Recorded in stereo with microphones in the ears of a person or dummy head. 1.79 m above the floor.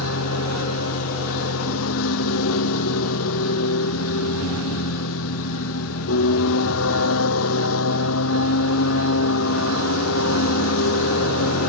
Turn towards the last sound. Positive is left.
turn(degrees=80)